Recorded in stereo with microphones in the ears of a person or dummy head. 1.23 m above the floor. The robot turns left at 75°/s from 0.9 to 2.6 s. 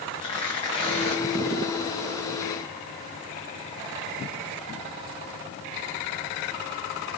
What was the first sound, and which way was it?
Tearing paper, 25° left (ahead or behind).